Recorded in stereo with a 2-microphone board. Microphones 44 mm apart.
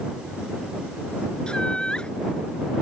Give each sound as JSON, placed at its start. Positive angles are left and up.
{"t": 1.5, "sound": "laughter", "side_deg": 20}